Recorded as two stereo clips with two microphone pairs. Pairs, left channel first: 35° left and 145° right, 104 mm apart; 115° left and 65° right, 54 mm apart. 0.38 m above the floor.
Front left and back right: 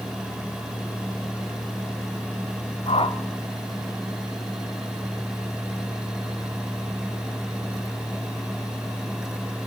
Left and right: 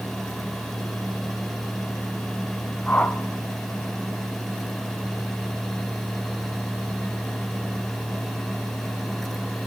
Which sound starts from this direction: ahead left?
A whoosh, at 2.9 s.